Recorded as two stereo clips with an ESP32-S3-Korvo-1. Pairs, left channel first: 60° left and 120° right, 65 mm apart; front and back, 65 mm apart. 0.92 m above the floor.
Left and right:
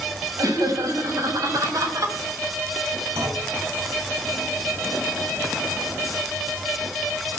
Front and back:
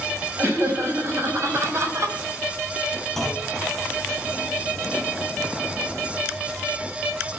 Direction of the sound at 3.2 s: 85° right.